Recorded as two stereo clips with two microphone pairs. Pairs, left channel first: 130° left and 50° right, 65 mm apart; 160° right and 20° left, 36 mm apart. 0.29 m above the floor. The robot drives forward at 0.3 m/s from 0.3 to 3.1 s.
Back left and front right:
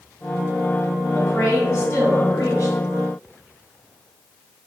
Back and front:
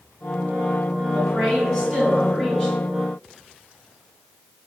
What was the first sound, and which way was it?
A woman speaking, 95° left.